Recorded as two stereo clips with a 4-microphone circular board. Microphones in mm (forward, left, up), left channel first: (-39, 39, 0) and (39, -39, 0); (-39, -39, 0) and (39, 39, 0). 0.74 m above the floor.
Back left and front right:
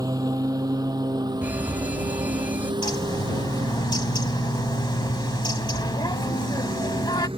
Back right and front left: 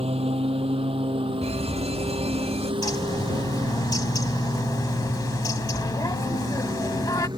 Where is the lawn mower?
15° left; by 7.4 s 5° right.